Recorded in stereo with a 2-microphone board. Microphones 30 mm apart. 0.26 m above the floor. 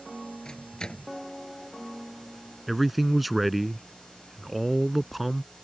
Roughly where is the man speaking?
Centre.